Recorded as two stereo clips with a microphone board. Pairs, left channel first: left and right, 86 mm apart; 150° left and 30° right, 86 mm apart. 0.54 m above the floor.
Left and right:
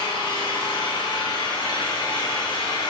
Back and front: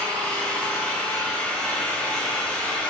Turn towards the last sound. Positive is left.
turn(degrees=75)